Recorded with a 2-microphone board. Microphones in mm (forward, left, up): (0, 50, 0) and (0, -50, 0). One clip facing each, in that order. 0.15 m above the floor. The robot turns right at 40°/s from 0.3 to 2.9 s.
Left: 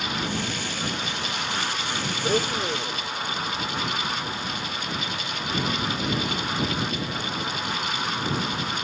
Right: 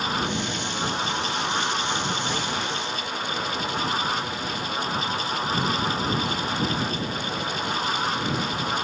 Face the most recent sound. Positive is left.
turn(degrees=25)  # may be behind; listen again after turning